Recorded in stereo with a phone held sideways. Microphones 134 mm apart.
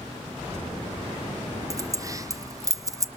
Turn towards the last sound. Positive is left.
turn(degrees=-25)  # may be behind; listen again after turning